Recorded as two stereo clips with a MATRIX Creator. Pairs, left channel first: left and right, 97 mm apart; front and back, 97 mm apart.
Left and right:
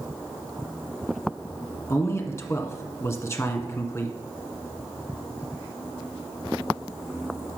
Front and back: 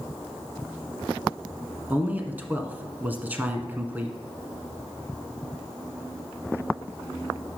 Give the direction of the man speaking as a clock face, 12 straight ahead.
8 o'clock.